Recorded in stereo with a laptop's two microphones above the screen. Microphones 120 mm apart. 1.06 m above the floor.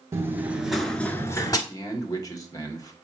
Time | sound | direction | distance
0.1 | running footsteps | 20° right (ahead or behind) | 1.3 m
1.7 | a man speaking | 30° left (ahead or behind) | 2 m